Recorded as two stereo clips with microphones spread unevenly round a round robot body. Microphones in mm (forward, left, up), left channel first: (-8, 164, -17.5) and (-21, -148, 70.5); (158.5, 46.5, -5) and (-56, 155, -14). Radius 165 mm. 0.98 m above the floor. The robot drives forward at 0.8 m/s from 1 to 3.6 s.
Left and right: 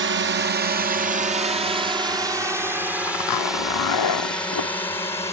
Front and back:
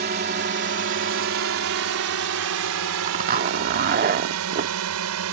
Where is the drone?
150° right; by 5.3 s 165° left.